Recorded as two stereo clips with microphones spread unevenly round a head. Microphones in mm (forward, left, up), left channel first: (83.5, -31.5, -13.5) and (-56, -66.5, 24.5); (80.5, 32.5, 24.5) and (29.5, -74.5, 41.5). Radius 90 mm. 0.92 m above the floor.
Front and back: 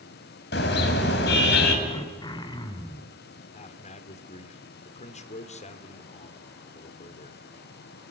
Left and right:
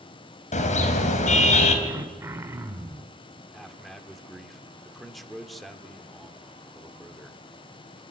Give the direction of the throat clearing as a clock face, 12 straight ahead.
2 o'clock.